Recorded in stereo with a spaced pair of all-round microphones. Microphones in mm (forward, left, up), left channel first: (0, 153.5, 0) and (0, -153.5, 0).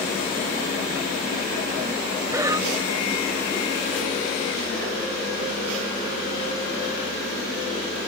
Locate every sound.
2.3 s breathing: 10° right (ahead or behind)